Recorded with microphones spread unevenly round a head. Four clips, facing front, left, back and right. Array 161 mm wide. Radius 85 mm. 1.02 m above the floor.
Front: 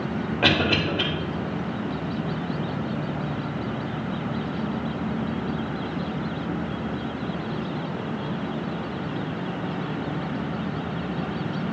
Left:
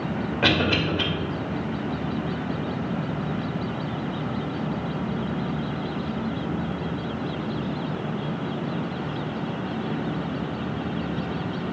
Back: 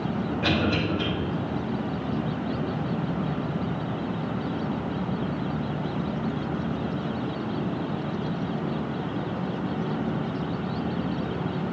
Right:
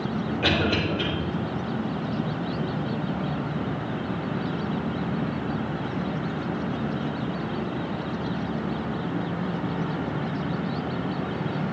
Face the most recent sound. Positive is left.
turn(degrees=30)